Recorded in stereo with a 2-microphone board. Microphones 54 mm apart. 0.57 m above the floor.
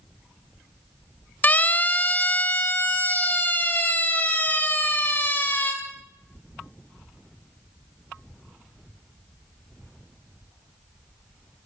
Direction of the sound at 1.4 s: 30° left (ahead or behind).